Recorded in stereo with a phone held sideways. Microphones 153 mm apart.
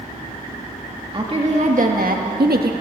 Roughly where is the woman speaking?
Right.